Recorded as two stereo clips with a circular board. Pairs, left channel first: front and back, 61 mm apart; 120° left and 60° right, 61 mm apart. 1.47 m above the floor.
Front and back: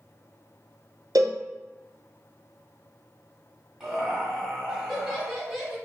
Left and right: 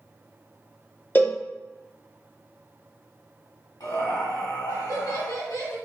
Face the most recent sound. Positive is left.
turn(degrees=105)